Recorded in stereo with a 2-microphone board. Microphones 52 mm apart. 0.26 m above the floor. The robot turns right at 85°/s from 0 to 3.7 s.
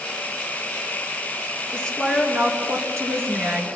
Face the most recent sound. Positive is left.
turn(degrees=-40)